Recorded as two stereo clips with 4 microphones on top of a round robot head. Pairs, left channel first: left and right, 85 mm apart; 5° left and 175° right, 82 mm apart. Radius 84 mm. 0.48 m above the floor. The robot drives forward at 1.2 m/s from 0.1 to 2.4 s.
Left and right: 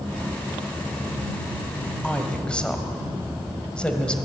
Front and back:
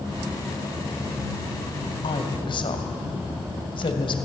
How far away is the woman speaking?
About 2.5 m.